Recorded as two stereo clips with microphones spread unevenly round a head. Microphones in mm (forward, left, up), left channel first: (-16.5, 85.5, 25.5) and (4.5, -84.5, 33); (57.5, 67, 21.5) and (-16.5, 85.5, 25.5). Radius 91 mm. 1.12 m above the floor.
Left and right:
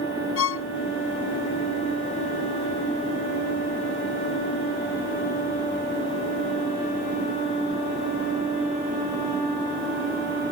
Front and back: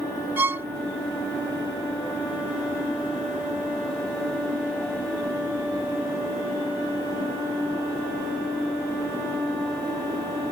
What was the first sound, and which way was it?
A violin, 105° left.